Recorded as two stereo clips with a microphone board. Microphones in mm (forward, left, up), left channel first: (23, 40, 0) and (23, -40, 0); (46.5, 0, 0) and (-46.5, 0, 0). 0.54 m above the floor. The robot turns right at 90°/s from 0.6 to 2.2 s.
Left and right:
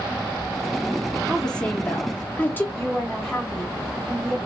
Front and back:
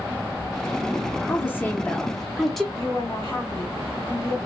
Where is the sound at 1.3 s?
Straight ahead, 0.7 m; by 2.6 s 85° left, 0.7 m.